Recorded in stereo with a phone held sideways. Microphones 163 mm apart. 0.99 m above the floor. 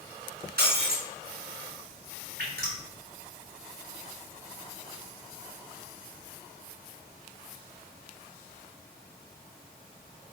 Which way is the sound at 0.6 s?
80° right.